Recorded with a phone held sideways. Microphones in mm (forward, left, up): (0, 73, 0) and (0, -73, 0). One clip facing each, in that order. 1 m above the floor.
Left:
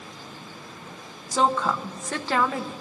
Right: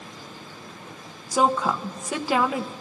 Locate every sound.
1.3 s a woman speaking: 10° right (ahead or behind), 0.7 m